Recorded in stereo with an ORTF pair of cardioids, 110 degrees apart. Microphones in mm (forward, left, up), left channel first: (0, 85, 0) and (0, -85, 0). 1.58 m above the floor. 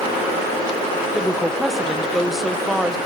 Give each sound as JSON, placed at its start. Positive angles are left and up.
{"t": 1.1, "sound": "a woman speaking", "azimuth_deg": 0, "distance_m": 1.4}